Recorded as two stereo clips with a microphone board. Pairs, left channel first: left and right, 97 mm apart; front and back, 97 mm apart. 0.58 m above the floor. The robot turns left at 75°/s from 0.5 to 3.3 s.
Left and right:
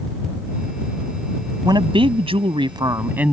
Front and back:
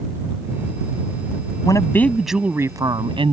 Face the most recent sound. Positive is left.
turn(degrees=-170)